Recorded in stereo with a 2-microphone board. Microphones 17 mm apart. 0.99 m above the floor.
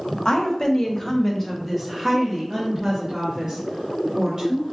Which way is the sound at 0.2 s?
55° left (ahead or behind).